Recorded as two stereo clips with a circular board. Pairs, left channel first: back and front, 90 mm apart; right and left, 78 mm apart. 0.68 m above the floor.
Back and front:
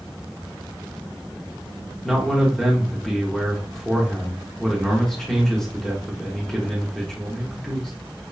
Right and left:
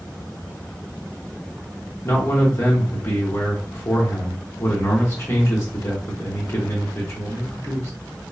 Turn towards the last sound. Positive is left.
turn(degrees=-100)